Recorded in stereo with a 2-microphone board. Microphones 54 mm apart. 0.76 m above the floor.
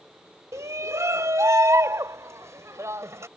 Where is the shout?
70° right (ahead or behind); by 3.3 s 65° right (ahead or behind).